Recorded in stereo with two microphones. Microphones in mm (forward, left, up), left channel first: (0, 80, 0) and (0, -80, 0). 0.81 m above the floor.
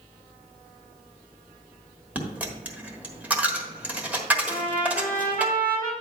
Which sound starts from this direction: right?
A trumpet, at 4.5 s.